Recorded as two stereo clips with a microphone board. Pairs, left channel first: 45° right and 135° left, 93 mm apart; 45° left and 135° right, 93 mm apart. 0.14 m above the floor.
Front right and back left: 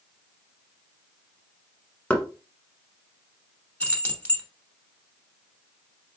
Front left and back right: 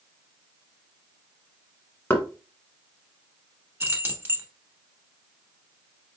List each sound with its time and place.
2.1 s knocking: 10° left, 0.9 m
3.8 s keys jangling: 100° right, 1.1 m